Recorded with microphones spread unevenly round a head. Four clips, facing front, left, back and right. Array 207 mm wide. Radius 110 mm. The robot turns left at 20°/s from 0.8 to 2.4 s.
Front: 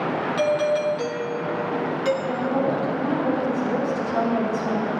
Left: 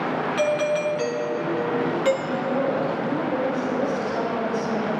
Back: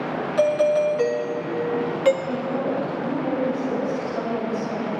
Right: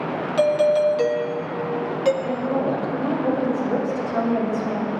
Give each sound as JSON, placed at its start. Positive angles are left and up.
{"t": 0.4, "sound": "a doorbell", "azimuth_deg": -140, "distance_m": 0.9}
{"t": 2.2, "sound": "a woman speaking", "azimuth_deg": -75, "distance_m": 5.5}